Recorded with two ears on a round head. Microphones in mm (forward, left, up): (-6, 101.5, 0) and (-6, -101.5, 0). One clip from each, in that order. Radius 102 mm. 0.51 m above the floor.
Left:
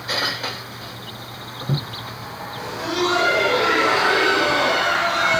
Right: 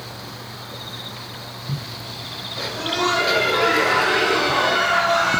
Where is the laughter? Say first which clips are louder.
Right 1 dB; 35° right (ahead or behind), 3.5 m.